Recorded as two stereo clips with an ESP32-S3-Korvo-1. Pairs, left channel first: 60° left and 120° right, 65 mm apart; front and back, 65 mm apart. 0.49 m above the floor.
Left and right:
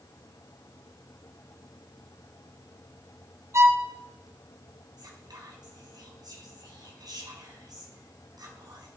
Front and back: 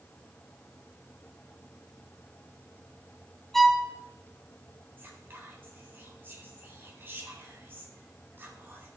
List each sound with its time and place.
3.5 s a violin: 85° right, 1.0 m
5.0 s whispering: 125° right, 3 m